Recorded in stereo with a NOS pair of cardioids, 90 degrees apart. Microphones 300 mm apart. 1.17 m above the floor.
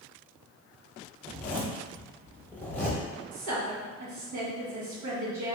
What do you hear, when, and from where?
1.2 s a zipper: 5° left, 1.1 m
3.3 s a woman speaking: 65° right, 1.4 m